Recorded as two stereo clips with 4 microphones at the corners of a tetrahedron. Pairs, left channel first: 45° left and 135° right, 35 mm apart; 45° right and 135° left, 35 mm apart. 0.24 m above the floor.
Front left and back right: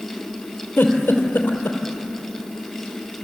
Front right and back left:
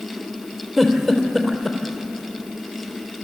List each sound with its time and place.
0.8 s a giggle: 45° left, 3 m